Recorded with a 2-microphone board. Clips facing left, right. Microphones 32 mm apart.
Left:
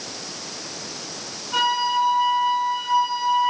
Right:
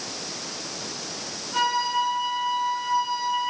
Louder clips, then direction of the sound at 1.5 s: Left 3 dB; 50° left (ahead or behind).